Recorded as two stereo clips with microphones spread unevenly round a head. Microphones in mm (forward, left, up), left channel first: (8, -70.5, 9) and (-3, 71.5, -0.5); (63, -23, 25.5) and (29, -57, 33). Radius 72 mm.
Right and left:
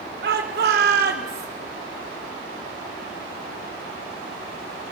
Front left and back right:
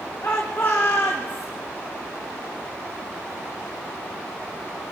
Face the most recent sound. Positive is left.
turn(degrees=125)